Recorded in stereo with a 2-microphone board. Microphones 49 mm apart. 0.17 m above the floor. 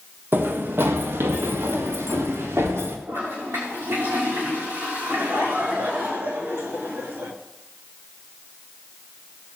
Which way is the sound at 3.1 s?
70° right (ahead or behind).